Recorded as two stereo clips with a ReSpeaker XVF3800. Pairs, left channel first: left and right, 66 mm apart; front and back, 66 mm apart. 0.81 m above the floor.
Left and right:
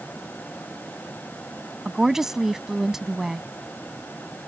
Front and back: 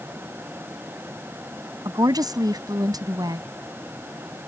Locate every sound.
1.9 s a woman speaking: 175° right